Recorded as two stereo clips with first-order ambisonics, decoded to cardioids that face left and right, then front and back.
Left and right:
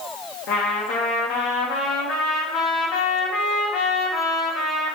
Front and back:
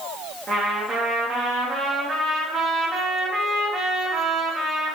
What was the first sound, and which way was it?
A trumpet, 115° left.